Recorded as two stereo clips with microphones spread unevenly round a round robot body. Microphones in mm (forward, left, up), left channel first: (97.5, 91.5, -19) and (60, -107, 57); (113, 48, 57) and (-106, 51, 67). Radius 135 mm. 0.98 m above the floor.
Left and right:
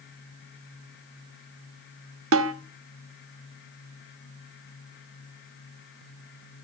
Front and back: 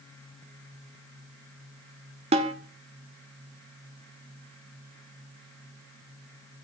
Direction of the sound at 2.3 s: 115° right.